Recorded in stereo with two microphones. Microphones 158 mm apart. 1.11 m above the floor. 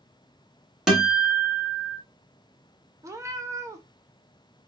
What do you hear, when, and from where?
0.9 s a guitar: 5° right (ahead or behind), 1.2 m
3.0 s a cat meowing: 20° right (ahead or behind), 0.6 m